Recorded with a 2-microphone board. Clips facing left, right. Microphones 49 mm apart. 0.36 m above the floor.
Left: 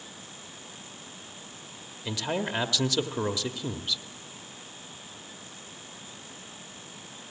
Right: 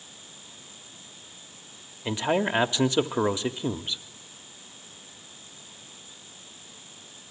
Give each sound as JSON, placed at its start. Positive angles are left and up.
{"t": 2.0, "sound": "a man speaking", "side_deg": -25, "distance_m": 1.0}